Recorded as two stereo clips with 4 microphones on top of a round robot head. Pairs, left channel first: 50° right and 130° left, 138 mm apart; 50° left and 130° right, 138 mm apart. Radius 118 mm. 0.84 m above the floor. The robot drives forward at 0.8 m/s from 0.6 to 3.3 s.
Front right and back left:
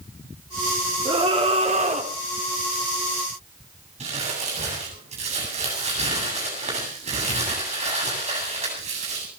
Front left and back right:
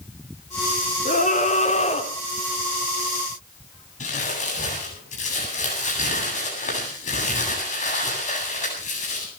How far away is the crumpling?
About 8.5 m.